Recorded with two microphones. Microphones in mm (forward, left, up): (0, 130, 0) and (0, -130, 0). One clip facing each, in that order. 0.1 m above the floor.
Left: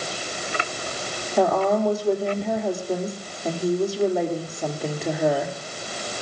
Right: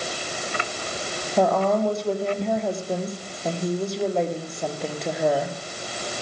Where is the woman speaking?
5° left (ahead or behind), 3 m.